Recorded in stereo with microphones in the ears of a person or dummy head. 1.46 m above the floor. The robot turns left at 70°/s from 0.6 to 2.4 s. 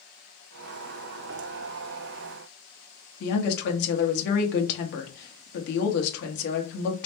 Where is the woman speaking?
60° left (ahead or behind), 1.1 m.